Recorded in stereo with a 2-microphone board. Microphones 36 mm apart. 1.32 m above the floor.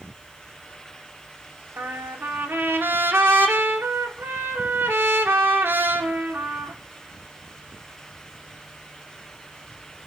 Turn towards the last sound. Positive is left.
turn(degrees=-80)